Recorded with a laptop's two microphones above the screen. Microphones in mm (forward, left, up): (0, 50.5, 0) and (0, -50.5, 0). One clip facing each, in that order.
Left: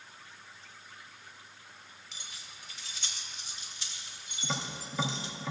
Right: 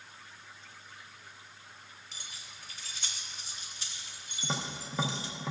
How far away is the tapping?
About 0.7 m.